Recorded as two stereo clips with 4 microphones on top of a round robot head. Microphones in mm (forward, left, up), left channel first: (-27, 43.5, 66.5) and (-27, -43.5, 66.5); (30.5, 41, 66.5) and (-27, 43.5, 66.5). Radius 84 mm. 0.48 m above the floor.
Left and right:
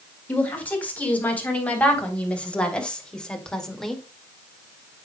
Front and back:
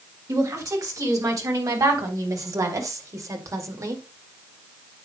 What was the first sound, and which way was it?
A woman speaking, 160° left.